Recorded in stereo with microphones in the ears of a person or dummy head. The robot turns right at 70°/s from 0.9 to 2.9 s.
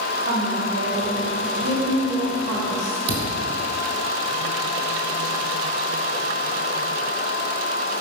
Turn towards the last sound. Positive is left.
turn(degrees=-35)  # may be behind; listen again after turning